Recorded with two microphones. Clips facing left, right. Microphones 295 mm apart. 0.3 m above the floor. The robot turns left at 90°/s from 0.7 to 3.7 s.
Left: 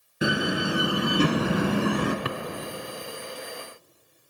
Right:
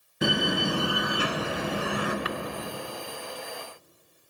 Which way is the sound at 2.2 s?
55° left (ahead or behind).